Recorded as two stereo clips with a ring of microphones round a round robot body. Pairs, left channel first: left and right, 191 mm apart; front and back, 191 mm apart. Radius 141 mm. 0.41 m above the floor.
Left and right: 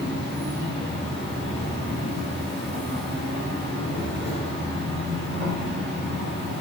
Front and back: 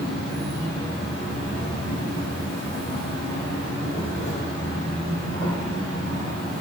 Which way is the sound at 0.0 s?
135° right.